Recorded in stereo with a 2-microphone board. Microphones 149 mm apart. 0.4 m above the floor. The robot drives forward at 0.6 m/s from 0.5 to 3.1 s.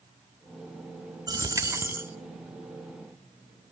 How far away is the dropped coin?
About 0.6 m.